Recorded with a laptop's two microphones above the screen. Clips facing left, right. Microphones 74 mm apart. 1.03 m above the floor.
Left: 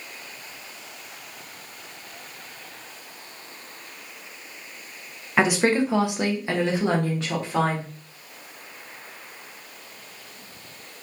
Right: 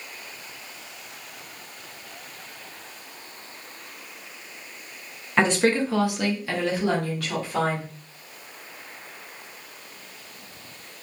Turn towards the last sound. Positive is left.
turn(degrees=25)  # may be behind; listen again after turning